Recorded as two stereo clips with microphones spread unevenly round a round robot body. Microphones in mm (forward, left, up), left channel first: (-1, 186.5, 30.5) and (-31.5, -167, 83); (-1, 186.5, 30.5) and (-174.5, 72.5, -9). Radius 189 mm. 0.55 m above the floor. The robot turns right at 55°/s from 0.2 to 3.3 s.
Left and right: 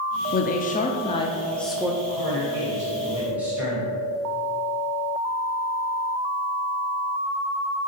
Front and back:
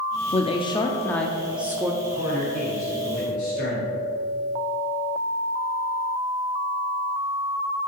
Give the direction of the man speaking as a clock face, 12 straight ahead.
3 o'clock.